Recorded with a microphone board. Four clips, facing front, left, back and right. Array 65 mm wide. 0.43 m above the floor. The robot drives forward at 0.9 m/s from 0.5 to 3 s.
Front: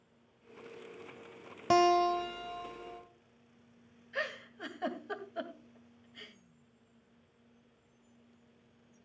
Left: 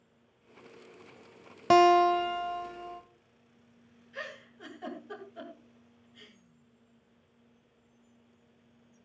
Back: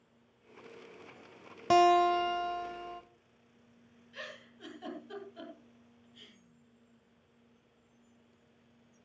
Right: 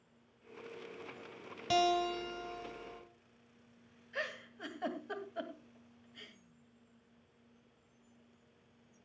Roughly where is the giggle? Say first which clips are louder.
Right 1 dB, front 9 dB; ahead right.